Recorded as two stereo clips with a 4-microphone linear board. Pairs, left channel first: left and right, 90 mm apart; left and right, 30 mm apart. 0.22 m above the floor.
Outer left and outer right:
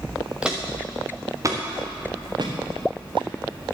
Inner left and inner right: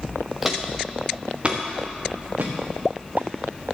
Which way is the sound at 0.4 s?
10° right (ahead or behind).